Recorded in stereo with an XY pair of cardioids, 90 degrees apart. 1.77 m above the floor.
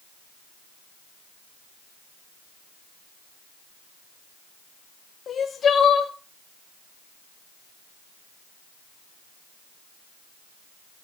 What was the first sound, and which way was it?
Crying, 60° left.